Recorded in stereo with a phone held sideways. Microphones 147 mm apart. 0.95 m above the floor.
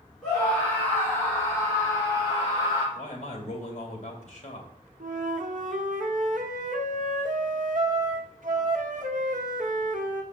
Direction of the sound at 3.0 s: 50° left (ahead or behind).